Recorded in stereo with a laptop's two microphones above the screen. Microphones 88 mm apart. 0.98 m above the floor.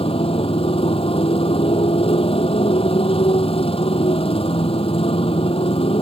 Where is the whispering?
I don't hear whispering.